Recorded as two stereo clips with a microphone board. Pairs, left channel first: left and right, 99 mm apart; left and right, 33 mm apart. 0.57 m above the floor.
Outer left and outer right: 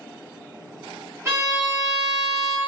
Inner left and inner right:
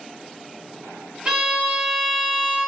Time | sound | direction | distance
1.2 | a violin | 30° right (ahead or behind) | 0.8 m